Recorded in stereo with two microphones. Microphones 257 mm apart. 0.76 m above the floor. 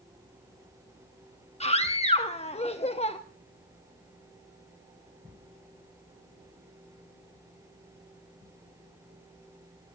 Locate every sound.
1.6 s a scream: 25° left (ahead or behind), 1.0 m